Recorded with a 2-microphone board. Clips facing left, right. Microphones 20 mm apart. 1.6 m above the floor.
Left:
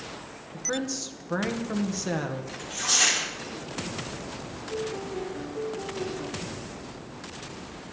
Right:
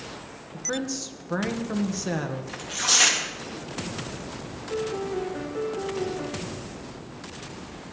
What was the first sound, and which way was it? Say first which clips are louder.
A woman speaking: even; centre (ahead or behind).